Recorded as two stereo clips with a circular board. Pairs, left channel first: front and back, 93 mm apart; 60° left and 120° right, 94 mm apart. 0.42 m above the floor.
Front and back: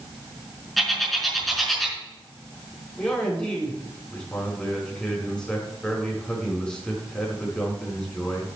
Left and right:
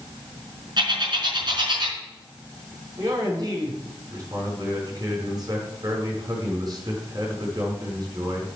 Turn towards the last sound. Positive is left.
turn(degrees=-80)